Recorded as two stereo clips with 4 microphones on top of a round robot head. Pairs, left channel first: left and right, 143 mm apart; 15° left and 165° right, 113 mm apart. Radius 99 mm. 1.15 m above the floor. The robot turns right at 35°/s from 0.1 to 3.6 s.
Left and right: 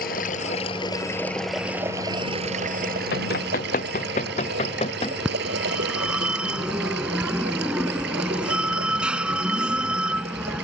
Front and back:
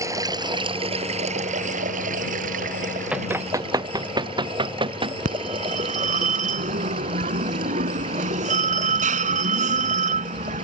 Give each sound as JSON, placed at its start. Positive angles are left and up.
{"t": 0.0, "sound": "running water", "azimuth_deg": 130}
{"t": 3.1, "sound": "running footsteps", "azimuth_deg": 110}
{"t": 5.2, "sound": "a phone ringing", "azimuth_deg": -175}